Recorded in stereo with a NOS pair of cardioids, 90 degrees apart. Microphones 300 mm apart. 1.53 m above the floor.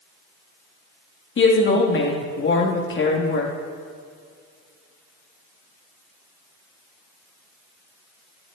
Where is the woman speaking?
40° left, 3.5 m.